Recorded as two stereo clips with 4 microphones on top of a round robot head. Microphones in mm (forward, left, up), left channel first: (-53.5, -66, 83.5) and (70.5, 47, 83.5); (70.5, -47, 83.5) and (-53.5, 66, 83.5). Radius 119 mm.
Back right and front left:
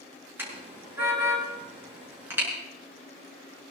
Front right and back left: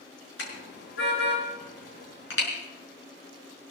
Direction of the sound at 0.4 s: 35° right.